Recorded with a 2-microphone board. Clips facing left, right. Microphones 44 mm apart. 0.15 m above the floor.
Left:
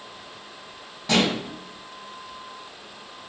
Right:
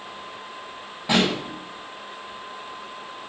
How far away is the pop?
About 5.5 m.